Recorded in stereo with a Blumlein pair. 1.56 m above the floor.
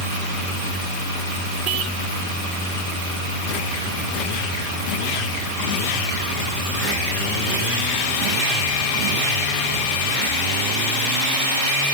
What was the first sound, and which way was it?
Only background noise.